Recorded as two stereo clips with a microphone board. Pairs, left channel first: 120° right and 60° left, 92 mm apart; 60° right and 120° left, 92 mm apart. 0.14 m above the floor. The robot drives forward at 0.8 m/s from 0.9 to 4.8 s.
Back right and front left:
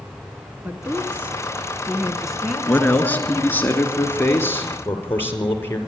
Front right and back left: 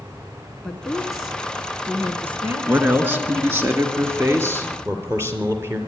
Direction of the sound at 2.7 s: Straight behind.